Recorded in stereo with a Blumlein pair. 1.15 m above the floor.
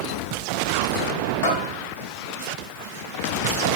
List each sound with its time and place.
1.4 s a bell: 50° left, 6.5 m